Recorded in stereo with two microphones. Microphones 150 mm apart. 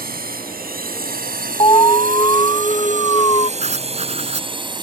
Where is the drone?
80° right; by 4.8 s 30° right (ahead or behind).